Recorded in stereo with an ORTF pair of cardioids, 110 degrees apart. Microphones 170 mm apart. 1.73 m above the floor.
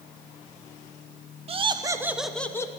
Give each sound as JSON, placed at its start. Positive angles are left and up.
{"t": 1.5, "sound": "laughter", "azimuth_deg": -35, "distance_m": 1.4}